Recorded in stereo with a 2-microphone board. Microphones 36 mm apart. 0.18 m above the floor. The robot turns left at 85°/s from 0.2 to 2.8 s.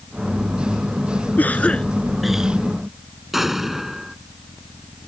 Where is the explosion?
5° right (ahead or behind).